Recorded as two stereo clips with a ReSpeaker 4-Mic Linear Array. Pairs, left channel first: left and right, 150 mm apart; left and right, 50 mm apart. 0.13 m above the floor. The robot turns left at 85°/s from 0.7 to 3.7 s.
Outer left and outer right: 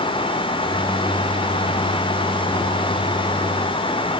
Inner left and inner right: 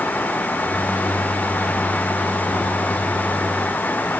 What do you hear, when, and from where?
Only background noise.